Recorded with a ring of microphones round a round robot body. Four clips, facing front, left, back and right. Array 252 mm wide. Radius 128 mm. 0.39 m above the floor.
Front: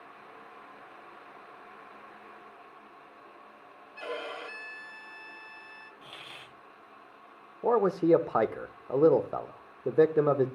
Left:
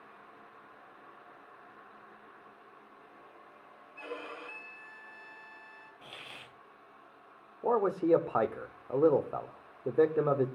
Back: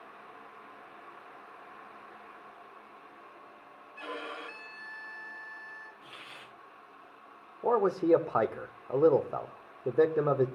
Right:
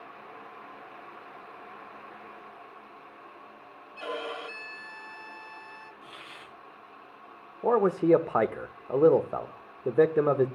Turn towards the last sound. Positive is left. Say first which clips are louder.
# right 5 dB, front 2 dB
turn(degrees=-60)